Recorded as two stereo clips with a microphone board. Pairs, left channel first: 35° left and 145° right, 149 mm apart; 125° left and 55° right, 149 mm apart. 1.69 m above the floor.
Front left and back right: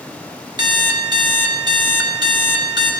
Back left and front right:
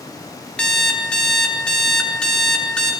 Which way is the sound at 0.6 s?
160° right.